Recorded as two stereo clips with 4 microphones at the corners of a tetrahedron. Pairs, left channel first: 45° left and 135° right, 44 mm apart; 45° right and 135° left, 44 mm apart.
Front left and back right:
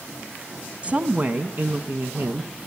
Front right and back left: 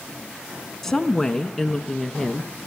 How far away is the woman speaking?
About 1.1 m.